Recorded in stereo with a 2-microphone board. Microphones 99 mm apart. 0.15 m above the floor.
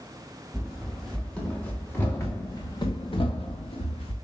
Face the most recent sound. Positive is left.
turn(degrees=75)  # may be behind; listen again after turning